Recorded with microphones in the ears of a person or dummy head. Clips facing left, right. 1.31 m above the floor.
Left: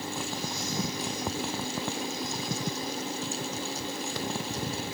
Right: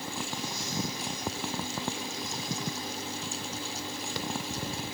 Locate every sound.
Only background noise.